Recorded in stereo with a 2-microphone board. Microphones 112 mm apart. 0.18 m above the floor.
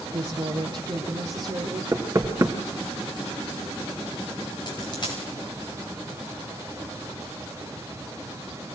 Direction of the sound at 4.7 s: 40° left (ahead or behind).